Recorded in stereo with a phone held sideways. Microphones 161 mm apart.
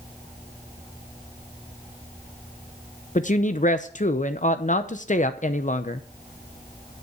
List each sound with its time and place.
3.1 s a woman speaking: 50° left (ahead or behind), 0.7 m